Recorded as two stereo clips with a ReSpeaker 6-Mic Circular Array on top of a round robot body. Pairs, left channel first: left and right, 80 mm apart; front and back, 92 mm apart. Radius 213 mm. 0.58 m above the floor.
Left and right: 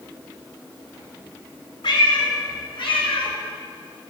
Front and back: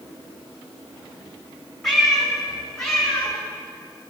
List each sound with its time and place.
1.8 s a cat meowing: 85° left, 3.5 m; by 3.3 s 80° left, 5 m